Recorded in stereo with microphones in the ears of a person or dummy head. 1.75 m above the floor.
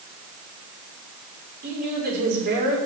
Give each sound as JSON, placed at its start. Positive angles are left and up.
{"t": 1.6, "sound": "a woman speaking", "side_deg": -55, "distance_m": 6.0}